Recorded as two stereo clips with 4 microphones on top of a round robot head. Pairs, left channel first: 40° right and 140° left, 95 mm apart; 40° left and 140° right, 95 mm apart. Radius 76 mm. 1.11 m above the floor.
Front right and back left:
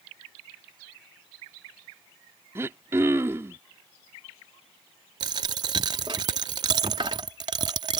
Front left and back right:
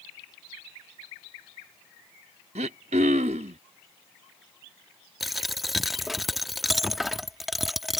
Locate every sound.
2.5 s throat clearing: 155° right
5.2 s a dropped coin: 135° left